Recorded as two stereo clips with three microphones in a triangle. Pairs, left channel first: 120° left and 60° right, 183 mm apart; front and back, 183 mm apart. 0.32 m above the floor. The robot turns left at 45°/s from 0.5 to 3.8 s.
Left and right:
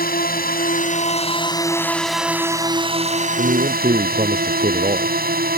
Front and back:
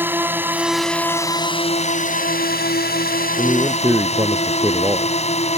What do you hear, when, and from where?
0.0 s a drone: 105° left; by 5.6 s 45° right
3.4 s a man speaking: 85° right; by 5.2 s 105° right